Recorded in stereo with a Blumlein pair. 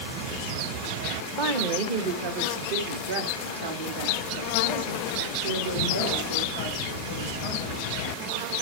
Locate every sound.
1.4 s a woman speaking: 45° right, 1.1 m; by 7.9 s 80° right, 4.5 m